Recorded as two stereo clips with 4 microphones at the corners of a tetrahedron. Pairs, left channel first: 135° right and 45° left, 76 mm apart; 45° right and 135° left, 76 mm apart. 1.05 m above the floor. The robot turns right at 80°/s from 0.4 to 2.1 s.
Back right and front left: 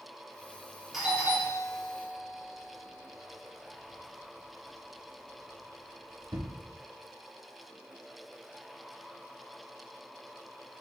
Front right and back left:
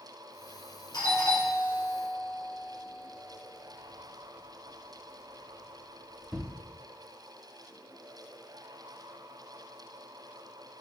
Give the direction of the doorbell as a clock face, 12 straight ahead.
1 o'clock.